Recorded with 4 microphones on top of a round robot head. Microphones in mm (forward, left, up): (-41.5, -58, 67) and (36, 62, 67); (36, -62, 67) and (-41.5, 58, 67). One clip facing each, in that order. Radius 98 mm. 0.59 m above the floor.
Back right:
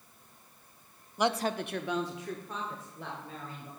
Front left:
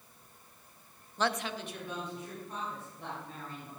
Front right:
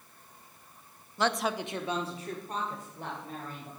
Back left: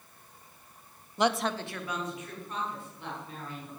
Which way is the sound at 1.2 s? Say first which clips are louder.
Back right 4 dB, back left 2 dB; 165° left.